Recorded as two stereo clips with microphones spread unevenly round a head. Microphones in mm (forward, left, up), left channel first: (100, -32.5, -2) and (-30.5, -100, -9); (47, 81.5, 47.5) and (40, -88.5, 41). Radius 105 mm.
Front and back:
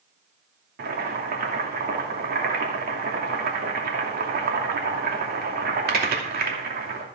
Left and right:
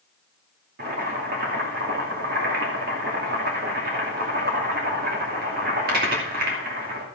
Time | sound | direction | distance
0.8 | boiling | 135° right | 2.5 m